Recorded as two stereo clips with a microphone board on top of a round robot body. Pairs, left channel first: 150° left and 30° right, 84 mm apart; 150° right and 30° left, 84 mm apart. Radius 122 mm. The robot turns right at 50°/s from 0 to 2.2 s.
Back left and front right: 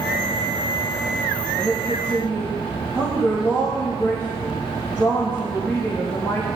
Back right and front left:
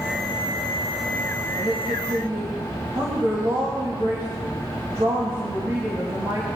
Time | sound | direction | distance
1.6 | a woman speaking | 55° left | 4.5 m